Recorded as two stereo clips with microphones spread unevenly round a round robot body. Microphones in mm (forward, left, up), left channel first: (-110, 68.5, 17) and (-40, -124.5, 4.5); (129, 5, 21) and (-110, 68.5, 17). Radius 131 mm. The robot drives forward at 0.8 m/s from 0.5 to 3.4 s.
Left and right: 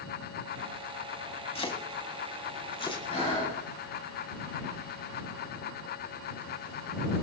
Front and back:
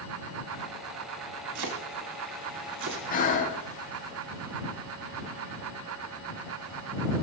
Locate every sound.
1.6 s chopping: 170° left, 3 m; by 3.0 s 175° left, 4 m
3.1 s breathing: 40° left, 8.5 m